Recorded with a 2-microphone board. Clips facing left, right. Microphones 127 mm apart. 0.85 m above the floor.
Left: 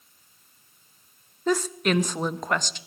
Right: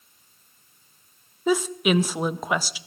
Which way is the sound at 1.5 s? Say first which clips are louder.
Right 2 dB; 5° right (ahead or behind).